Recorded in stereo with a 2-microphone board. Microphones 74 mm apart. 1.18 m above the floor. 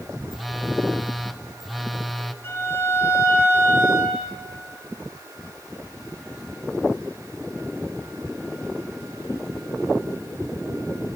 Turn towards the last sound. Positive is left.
turn(degrees=35)  # may be behind; listen again after turning